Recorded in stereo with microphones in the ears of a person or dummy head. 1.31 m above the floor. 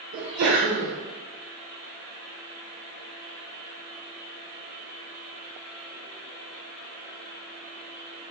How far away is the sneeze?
About 0.5 m.